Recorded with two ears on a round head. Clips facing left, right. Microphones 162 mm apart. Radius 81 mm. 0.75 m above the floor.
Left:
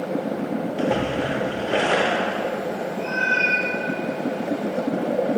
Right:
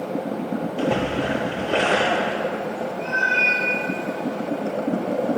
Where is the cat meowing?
25° left (ahead or behind), 1.9 m.